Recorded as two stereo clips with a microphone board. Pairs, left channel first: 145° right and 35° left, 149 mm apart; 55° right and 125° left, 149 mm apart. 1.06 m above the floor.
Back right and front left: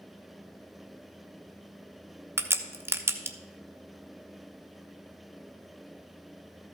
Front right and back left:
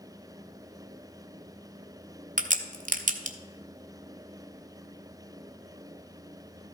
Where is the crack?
105° left, 0.9 m.